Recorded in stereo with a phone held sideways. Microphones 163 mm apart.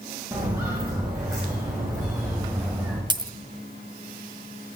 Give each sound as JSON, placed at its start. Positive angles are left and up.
{"t": 0.3, "sound": "footsteps", "side_deg": -20, "distance_m": 7.0}
{"t": 3.1, "sound": "a dropped coin", "side_deg": -30, "distance_m": 0.7}